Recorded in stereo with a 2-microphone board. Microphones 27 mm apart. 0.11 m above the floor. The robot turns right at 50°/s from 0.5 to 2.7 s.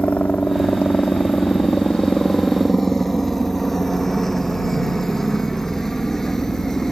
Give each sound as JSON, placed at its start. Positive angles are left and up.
{"t": 0.0, "sound": "a helicopter", "side_deg": 65}